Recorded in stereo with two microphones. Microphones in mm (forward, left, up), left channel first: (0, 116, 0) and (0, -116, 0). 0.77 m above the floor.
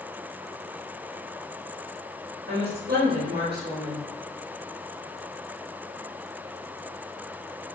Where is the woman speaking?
45° right (ahead or behind), 1.5 m.